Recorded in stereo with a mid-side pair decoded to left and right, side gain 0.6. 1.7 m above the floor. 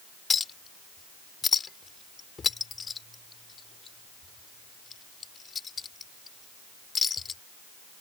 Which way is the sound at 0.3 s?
30° left.